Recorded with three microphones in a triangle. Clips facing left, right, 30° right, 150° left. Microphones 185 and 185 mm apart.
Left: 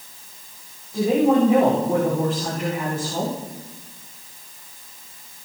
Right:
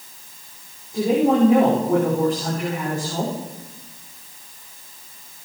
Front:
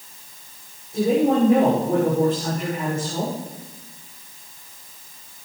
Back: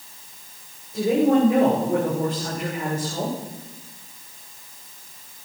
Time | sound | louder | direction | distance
0.9 | a woman speaking | even, even | 5° left | 9 m